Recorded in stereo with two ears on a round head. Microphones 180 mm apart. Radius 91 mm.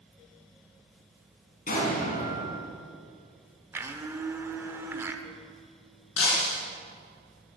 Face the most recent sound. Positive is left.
turn(degrees=85)